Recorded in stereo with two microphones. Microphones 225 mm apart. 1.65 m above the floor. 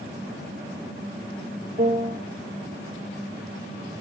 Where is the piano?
50° right (ahead or behind), 3 m.